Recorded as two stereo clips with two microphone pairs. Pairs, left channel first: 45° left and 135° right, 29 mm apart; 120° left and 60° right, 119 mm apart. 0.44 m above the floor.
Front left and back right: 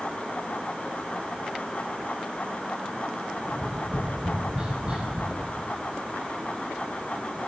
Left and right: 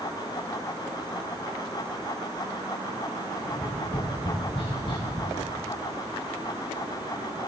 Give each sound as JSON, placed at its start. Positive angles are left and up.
{"t": 3.5, "sound": "tapping", "azimuth_deg": 170, "distance_m": 5.5}